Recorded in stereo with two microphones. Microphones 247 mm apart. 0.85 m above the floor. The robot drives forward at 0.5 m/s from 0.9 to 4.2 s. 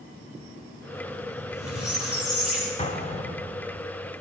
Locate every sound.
1.4 s a squeak: 70° left (ahead or behind), 9.5 m; by 2.7 s 65° left (ahead or behind), 10 m
2.8 s an explosion: 25° left (ahead or behind), 2 m; by 3.8 s 20° left (ahead or behind), 2.5 m